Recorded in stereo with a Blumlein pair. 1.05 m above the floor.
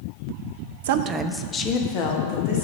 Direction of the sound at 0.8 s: 60° right.